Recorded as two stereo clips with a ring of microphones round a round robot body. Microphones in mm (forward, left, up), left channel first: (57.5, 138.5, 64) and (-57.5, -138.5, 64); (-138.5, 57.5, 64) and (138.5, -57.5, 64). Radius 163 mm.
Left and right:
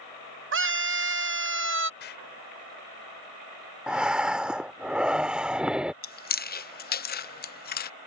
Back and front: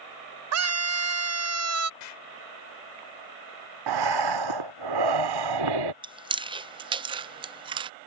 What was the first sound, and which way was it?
A scream, 60° right.